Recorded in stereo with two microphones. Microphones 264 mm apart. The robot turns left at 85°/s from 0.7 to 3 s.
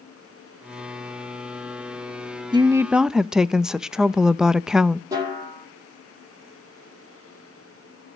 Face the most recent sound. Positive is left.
turn(degrees=-15)  # may be behind; listen again after turning